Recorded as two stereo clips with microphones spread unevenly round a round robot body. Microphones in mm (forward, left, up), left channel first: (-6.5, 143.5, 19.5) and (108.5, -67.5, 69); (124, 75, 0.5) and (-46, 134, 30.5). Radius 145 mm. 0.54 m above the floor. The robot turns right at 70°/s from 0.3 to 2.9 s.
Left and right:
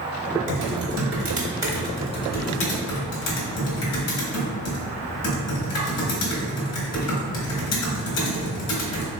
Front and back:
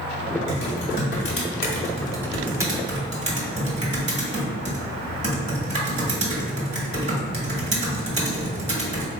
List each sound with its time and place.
0.5 s typing on a keyboard: 65° right, 1.5 m; by 9.1 s 105° left, 1.5 m